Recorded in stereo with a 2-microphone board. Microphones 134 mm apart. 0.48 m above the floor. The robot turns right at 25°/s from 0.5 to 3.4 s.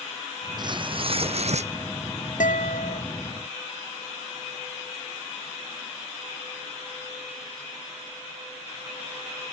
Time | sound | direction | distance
0.6 | tearing paper | 35° right (ahead or behind) | ?
2.4 | a guitar | 85° left | ?